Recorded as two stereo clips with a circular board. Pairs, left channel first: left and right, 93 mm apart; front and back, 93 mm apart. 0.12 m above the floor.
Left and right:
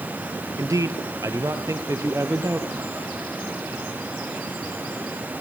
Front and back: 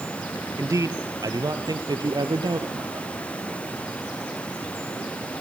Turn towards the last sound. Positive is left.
turn(degrees=-145)